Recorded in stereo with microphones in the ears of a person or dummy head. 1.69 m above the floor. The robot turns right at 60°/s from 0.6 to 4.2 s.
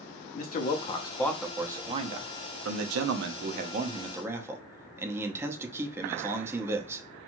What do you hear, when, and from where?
0.3 s a man speaking: 140° left, 0.5 m; by 7.0 s 5° right, 0.5 m